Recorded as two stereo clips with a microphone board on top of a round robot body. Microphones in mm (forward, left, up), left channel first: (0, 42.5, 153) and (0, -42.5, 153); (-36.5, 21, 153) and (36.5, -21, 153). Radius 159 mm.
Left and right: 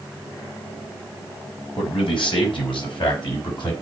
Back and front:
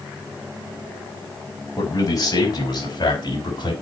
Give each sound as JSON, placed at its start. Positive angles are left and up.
{"t": 1.8, "sound": "a man speaking", "azimuth_deg": 100, "distance_m": 5.0}